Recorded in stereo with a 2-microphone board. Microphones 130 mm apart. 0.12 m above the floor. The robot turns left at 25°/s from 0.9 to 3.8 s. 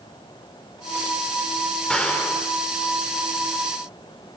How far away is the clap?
About 5 m.